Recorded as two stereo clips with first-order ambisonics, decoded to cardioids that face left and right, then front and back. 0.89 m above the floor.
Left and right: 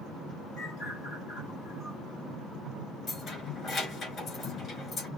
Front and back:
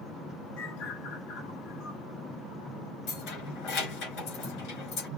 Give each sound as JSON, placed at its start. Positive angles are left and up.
{"t": 0.6, "sound": "a bird", "azimuth_deg": -5, "distance_m": 3.0}
{"t": 3.1, "sound": "keys jangling", "azimuth_deg": 25, "distance_m": 3.5}